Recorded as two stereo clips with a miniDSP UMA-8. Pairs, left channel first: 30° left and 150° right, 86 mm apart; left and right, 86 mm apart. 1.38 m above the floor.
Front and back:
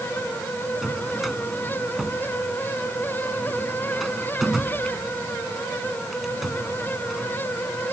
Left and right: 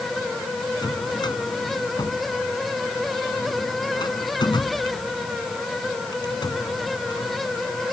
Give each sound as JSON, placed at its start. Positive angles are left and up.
{"t": 0.8, "sound": "a drawer", "azimuth_deg": 125}